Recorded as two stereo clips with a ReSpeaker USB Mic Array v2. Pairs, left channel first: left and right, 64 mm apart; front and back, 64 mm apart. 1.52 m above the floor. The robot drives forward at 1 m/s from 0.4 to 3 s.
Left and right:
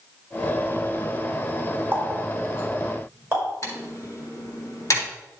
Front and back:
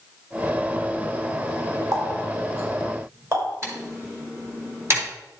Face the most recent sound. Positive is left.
turn(degrees=130)